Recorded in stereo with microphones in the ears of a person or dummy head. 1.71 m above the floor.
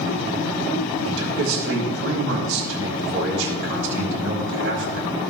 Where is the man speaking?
70° right (ahead or behind), 2.5 m.